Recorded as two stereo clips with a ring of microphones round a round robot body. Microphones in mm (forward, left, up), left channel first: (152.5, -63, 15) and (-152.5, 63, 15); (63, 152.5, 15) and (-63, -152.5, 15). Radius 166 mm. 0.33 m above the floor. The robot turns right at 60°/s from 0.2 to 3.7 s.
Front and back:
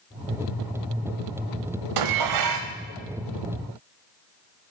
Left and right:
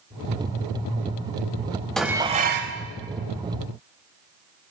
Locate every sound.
2.0 s dishes clattering: 155° left, 1.2 m; by 2.8 s 155° right, 1.2 m